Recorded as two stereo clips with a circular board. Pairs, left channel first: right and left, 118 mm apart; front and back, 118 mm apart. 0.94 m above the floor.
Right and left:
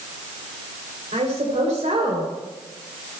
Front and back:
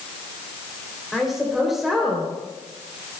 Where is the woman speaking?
90° left, 3 m.